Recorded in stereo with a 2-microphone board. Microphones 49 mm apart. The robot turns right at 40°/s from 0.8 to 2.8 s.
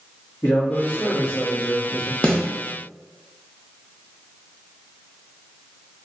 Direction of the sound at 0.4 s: 110° left.